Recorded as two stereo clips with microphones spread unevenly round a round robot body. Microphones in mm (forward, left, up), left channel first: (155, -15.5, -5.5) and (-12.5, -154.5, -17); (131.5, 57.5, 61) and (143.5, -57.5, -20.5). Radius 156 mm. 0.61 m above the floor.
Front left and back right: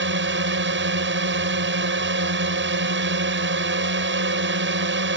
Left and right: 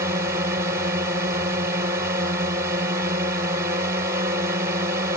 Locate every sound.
0.0 s a drone: 125° right